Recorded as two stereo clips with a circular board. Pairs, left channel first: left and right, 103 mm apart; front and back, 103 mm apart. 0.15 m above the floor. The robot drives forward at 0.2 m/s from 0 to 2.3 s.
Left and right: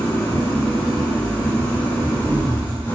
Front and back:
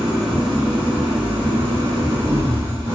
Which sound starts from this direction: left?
An engine running, at 0.0 s.